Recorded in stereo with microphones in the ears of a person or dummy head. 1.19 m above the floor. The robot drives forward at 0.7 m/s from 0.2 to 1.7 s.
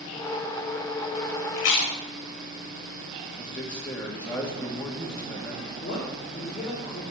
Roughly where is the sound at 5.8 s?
Left.